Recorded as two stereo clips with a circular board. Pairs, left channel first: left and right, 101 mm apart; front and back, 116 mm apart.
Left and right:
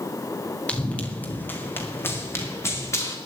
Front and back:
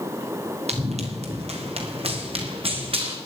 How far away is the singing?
I don't hear singing.